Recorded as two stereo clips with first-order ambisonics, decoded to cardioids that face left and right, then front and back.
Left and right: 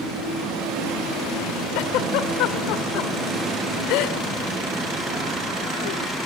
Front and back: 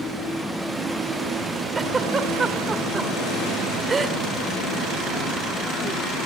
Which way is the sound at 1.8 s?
105° left.